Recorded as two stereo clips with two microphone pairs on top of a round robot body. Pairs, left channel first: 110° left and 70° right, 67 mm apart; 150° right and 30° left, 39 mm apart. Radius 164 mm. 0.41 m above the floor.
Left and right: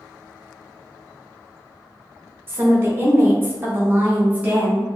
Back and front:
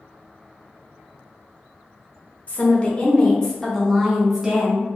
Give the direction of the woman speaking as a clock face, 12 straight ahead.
4 o'clock.